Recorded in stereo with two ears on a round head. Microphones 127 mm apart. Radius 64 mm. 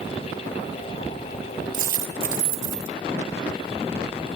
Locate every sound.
1.7 s a dropped coin: 75° right (ahead or behind), 3.5 m